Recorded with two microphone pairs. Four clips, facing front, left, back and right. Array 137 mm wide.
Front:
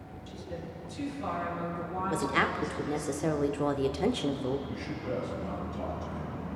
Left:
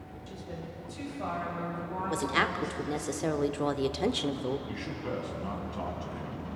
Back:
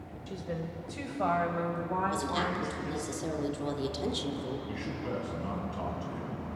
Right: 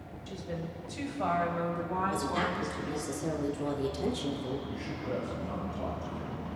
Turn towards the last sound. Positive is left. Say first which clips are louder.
# even, front 1 dB
turn(degrees=120)